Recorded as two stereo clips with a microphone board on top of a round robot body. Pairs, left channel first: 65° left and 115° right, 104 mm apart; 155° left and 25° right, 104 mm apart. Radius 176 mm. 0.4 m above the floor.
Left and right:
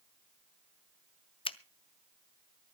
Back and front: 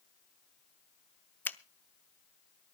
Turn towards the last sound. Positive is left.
turn(degrees=85)